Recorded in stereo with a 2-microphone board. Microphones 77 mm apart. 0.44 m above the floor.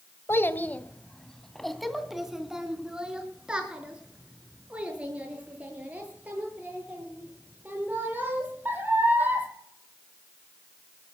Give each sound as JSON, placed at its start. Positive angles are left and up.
{"t": 0.3, "sound": "a child speaking", "side_deg": 35, "distance_m": 1.2}